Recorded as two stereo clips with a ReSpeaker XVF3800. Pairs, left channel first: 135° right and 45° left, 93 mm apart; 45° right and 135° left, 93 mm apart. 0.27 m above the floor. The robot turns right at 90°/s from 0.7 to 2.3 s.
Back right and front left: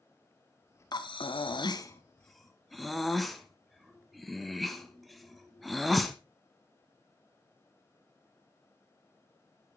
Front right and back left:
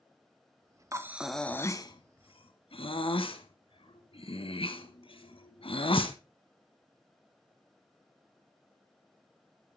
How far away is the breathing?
About 0.9 m.